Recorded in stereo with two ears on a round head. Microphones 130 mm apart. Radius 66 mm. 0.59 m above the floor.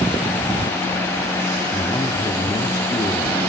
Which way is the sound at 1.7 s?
30° left (ahead or behind).